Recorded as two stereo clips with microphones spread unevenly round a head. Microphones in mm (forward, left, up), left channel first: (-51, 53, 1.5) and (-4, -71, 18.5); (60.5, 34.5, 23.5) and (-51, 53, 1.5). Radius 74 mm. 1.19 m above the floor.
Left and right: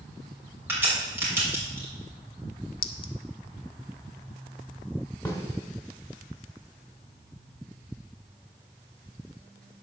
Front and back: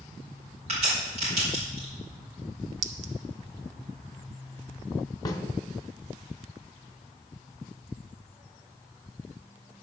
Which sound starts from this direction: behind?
A clink, at 2.8 s.